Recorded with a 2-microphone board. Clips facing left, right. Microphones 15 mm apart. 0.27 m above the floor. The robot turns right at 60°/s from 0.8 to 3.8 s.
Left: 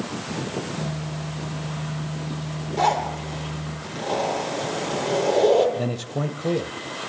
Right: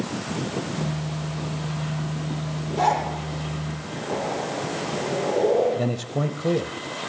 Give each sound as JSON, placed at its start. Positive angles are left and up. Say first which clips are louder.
{"t": 2.8, "sound": "a zipper", "louder": "even", "side_deg": 0, "distance_m": 8.0}
{"t": 5.8, "sound": "a man speaking", "louder": "right 1 dB", "side_deg": 0, "distance_m": 0.9}